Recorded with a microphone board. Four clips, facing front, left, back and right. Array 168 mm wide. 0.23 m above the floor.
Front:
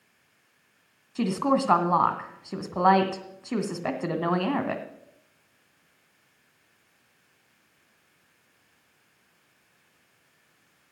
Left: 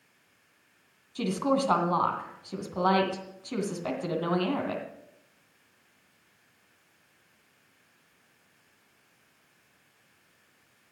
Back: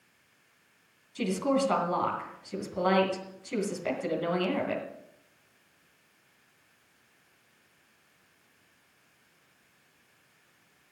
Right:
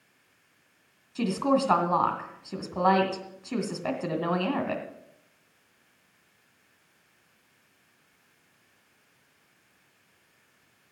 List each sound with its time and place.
1.1 s a woman speaking: 15° right, 2.0 m